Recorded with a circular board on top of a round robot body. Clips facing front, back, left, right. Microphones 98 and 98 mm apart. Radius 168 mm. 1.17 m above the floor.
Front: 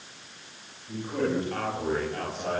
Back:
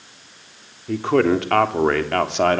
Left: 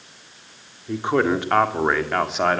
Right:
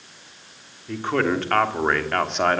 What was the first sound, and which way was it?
A man speaking, 165° left.